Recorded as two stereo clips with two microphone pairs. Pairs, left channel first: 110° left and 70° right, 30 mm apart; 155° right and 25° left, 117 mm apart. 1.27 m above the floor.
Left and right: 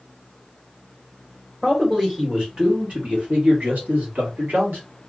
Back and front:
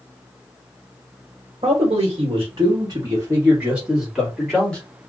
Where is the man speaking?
5° left, 1.2 m; by 4.8 s 75° right, 1.5 m.